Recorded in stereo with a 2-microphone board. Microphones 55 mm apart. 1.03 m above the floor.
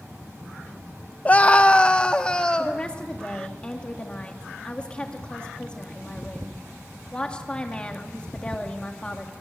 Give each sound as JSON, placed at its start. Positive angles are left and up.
{"t": 1.2, "sound": "a scream", "side_deg": 30, "distance_m": 0.7}
{"t": 2.6, "sound": "a woman speaking", "side_deg": 20, "distance_m": 2.0}